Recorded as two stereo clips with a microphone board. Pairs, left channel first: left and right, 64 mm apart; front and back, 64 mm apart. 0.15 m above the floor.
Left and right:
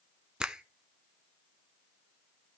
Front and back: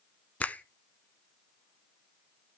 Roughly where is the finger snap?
Ahead right.